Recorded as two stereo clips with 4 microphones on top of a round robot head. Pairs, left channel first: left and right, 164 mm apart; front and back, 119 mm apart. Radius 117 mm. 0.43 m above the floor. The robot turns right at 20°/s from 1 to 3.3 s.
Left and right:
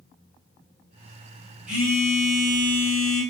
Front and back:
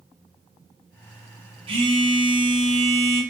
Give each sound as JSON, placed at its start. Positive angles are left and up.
{"t": 1.7, "sound": "a phone buzzing", "azimuth_deg": -175, "distance_m": 0.9}